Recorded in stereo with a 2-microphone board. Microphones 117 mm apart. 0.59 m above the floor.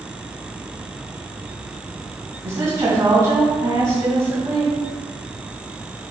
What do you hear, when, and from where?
2.4 s a woman speaking: 30° right (ahead or behind), 4 m